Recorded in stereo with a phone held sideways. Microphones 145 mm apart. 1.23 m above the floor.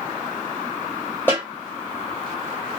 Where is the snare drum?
15° left (ahead or behind), 1.5 m.